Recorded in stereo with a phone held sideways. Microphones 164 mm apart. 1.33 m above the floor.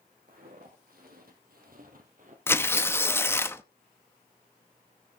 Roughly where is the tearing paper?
Centre.